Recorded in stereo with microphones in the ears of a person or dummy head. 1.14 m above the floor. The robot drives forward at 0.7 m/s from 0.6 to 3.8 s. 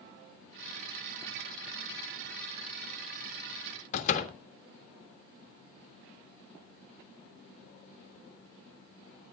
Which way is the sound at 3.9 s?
55° left (ahead or behind).